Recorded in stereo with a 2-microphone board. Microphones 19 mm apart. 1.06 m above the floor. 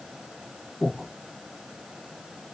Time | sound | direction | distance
0.8 | breathing | 15° left (ahead or behind) | 1.7 m